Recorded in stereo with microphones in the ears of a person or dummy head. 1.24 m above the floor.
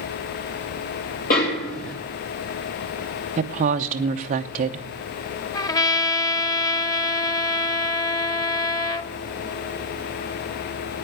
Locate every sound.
1.3 s a snare drum: 45° left (ahead or behind), 2.5 m
3.4 s a woman speaking: 40° right (ahead or behind), 0.9 m
5.5 s a trumpet: 20° left (ahead or behind), 0.6 m